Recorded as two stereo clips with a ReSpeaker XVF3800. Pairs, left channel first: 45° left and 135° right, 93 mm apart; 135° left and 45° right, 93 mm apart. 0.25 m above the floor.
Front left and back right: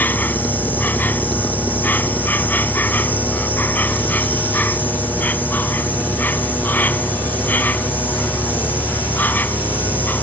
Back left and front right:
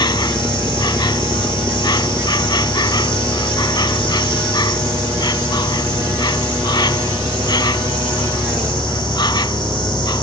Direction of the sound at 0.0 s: 110° left.